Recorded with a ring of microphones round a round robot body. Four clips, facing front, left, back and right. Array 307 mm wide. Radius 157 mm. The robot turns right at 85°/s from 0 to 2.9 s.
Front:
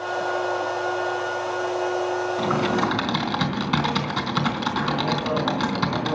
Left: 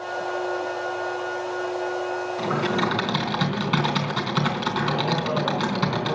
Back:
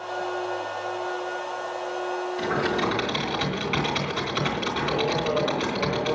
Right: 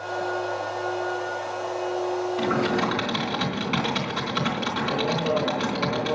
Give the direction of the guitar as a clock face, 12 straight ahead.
I don't hear a guitar.